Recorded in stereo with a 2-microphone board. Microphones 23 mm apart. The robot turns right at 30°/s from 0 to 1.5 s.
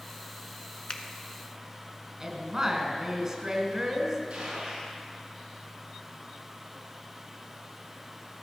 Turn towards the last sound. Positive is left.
turn(degrees=-50)  # may be behind; listen again after turning